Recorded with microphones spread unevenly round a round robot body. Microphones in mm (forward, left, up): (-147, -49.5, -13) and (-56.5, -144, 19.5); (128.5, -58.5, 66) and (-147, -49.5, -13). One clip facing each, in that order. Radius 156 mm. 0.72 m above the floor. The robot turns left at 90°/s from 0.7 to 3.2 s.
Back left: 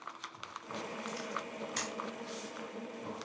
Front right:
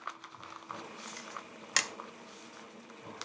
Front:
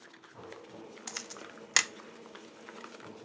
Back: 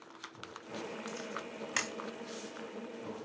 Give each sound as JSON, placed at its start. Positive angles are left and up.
{"t": 1.1, "sound": "a camera shutter", "azimuth_deg": 25, "distance_m": 0.6}